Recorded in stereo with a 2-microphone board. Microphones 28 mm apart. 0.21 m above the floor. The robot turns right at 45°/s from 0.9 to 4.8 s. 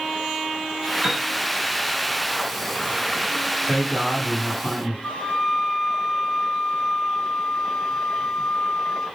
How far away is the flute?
About 1.5 m.